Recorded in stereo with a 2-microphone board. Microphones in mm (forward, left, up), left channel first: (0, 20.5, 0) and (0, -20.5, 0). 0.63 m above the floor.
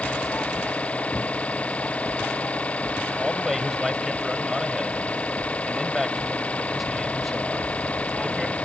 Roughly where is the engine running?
Left.